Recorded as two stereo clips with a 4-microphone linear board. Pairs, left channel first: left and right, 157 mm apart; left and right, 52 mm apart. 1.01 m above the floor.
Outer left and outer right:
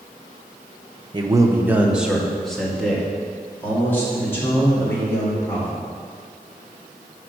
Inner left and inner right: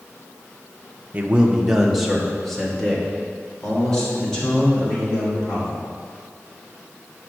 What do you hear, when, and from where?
1.1 s a man speaking: 30° right (ahead or behind), 0.6 m; by 5.8 s 15° left (ahead or behind), 3 m